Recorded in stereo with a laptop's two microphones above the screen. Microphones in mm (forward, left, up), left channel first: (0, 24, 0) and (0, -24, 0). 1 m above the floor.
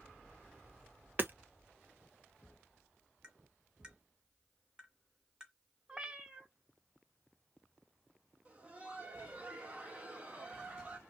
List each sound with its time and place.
1.2 s hammering: 45° right (ahead or behind), 0.6 m
3.2 s tapping: 15° right (ahead or behind), 1.4 m
5.9 s a cat meowing: 15° right (ahead or behind), 0.7 m
8.4 s laughter: 25° right (ahead or behind), 1.3 m